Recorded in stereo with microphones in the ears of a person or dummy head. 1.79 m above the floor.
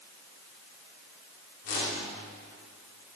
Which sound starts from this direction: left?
A whoosh, at 1.6 s.